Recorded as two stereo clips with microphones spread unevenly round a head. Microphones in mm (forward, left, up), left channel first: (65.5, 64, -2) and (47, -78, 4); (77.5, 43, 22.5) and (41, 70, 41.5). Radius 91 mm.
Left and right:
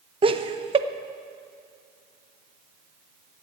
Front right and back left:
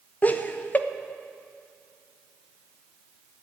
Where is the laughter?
50° right, 1.0 m.